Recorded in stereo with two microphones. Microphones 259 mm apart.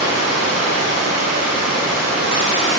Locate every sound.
0.0 s running water: 85° left, 5 m